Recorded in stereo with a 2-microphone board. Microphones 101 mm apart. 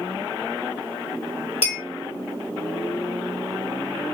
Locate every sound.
1.6 s a clink: 80° left, 1.3 m